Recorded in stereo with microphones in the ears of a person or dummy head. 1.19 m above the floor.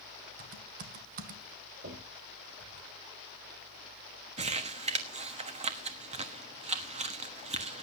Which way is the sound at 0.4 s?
50° right (ahead or behind).